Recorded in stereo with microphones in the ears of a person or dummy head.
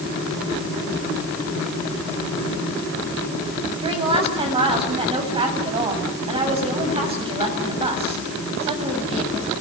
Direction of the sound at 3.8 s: 35° right (ahead or behind).